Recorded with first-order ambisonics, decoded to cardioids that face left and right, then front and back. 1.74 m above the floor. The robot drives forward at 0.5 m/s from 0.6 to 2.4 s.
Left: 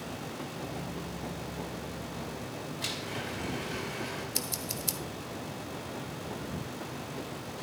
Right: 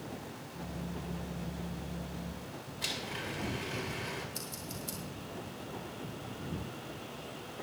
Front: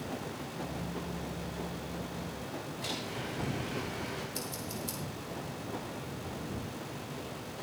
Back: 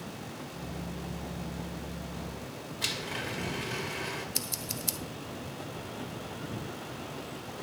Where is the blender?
Straight behind, 1.9 m.